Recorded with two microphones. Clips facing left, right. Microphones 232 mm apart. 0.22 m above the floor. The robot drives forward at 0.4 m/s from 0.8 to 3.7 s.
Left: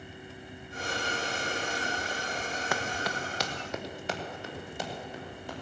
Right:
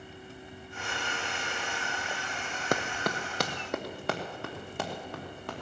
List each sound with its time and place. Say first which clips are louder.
2.7 s running footsteps: right 6 dB; 40° right (ahead or behind), 0.6 m; by 5.6 s 70° right (ahead or behind), 4 m